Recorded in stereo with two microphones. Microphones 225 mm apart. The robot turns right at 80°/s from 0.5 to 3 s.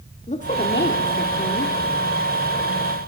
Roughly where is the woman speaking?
Ahead left.